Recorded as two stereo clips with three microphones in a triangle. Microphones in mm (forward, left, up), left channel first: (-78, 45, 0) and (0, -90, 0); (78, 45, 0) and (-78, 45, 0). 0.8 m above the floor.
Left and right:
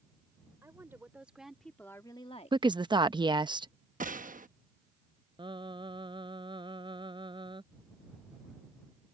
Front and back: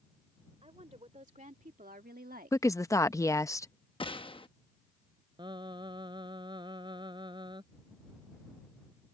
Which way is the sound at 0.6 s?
135° right.